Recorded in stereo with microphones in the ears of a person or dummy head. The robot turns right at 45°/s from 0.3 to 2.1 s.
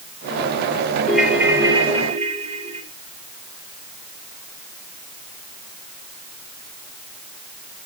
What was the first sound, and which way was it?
A ringtone, 175° left.